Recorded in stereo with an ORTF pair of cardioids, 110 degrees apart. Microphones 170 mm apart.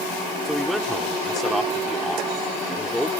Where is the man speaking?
Straight ahead.